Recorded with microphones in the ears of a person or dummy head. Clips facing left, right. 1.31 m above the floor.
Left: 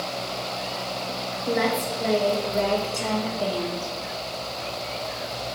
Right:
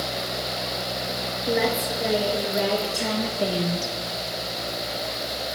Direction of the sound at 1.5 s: 5° right (ahead or behind).